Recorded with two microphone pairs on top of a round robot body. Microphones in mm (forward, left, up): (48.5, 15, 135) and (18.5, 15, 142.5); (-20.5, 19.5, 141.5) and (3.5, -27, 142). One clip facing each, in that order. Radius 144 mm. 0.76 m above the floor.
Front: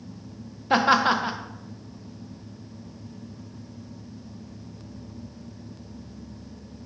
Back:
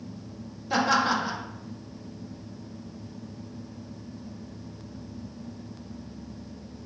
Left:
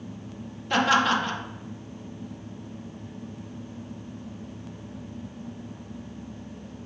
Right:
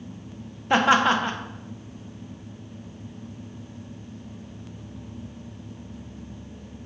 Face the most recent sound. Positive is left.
turn(degrees=-10)